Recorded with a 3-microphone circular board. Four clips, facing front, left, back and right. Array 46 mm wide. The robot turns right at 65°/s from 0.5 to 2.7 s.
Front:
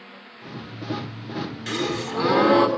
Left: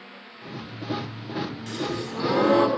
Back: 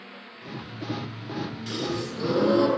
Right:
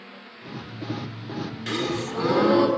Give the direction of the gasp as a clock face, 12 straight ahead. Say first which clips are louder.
Right 3 dB, front 5 dB; 2 o'clock.